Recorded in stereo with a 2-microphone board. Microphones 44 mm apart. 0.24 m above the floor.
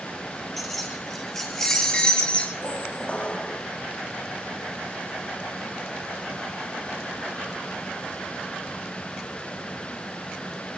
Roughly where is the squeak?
Left.